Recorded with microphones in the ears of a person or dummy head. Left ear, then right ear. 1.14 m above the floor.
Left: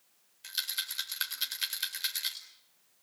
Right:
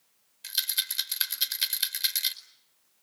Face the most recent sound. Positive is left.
turn(degrees=-15)  # may be behind; listen again after turning